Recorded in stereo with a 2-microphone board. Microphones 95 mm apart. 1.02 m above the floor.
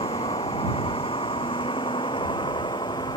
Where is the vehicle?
80° left; by 3.2 s 60° left (ahead or behind).